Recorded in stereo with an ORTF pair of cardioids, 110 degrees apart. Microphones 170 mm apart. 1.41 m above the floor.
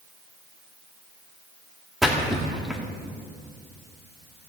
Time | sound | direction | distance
2.0 | a splash | straight ahead | 2 m